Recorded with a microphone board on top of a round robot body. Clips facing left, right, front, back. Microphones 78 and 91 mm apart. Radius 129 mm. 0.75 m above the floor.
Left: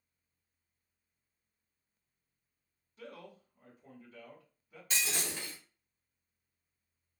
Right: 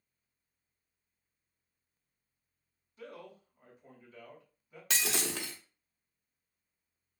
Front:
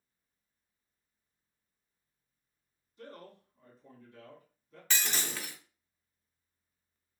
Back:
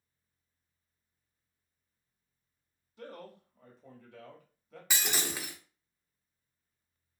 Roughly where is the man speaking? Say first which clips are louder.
Right 1 dB, back 3 dB; behind.